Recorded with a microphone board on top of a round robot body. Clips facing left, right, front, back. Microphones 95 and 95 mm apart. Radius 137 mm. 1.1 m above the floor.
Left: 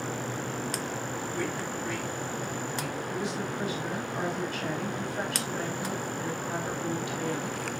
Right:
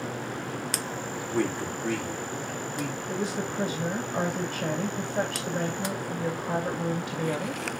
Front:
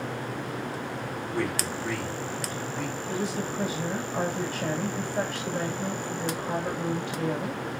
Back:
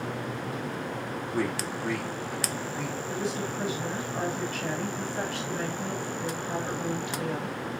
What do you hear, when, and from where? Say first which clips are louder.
1.3 s a man speaking: right 8 dB, even; 100° right, 3.5 m
3.1 s a woman speaking: right 3 dB, front 1 dB; 65° right, 2 m